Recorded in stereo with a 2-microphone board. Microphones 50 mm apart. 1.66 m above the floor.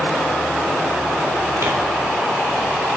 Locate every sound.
1.6 s tearing paper: 60° right (ahead or behind), 2 m